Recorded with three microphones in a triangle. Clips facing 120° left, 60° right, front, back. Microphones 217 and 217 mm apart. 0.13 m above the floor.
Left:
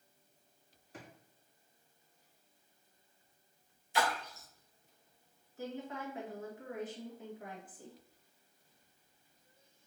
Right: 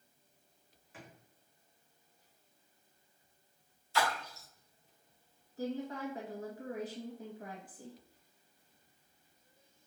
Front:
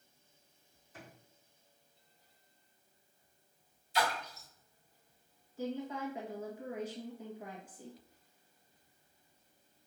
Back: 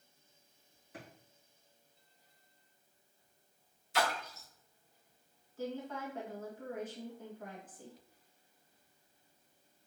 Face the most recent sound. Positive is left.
turn(degrees=-75)